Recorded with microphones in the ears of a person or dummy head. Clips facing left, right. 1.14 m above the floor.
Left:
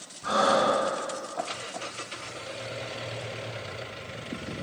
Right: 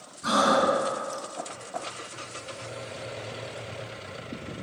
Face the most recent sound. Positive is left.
turn(degrees=-60)  # may be behind; listen again after turning